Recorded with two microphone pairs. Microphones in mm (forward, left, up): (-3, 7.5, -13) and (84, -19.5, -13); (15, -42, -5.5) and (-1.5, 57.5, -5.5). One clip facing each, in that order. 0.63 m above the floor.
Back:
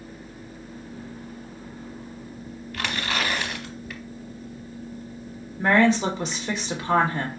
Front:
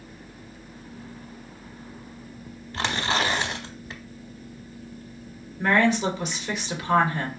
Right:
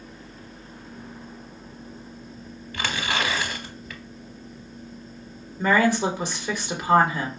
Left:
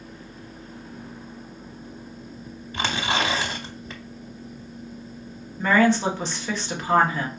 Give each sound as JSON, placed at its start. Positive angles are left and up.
{"t": 2.7, "sound": "tearing paper", "azimuth_deg": 40, "distance_m": 0.7}
{"t": 5.6, "sound": "a woman speaking", "azimuth_deg": -155, "distance_m": 1.3}